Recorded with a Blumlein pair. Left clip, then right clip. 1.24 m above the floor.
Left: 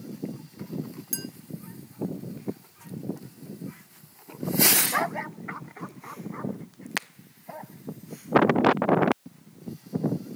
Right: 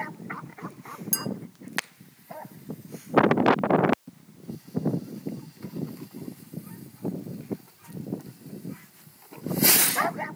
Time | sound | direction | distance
1.1 | a clink | 15° right | 0.6 m